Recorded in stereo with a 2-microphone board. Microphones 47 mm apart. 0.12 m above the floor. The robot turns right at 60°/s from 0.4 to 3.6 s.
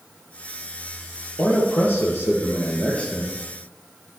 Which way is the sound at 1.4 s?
55° left.